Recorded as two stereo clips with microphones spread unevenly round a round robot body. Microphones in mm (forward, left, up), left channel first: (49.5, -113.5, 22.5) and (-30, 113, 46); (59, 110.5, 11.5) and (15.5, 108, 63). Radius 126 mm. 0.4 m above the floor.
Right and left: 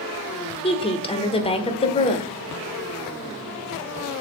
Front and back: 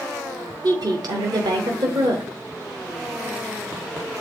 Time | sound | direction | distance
0.6 | a woman speaking | 120° right | 1.2 m